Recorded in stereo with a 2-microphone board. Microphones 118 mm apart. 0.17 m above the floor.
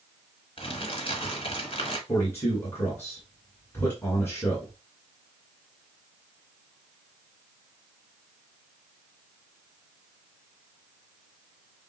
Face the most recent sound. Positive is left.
turn(degrees=20)  # may be behind; listen again after turning